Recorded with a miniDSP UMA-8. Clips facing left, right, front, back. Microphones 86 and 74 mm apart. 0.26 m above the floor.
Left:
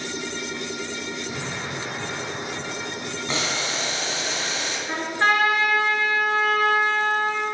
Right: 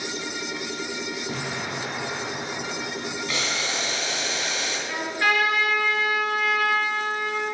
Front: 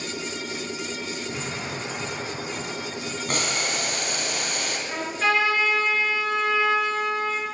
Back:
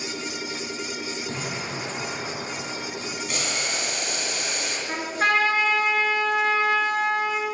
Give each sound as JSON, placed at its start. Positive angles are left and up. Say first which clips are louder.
{"t": 1.3, "sound": "an explosion", "louder": "right 1 dB, even", "azimuth_deg": -135, "distance_m": 4.0}
{"t": 3.3, "sound": "boiling", "louder": "left 4 dB, front 4 dB", "azimuth_deg": 35, "distance_m": 2.5}
{"t": 4.9, "sound": "a trumpet", "louder": "left 3 dB, back 1 dB", "azimuth_deg": 140, "distance_m": 2.5}